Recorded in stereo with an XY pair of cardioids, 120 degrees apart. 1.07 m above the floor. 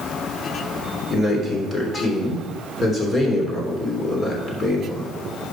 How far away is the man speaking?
About 3 m.